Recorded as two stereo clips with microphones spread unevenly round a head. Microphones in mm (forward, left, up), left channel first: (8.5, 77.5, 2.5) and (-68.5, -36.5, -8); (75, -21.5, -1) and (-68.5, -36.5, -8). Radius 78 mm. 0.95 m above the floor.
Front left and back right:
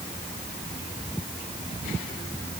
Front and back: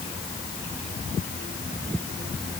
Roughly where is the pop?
No pop in this recording.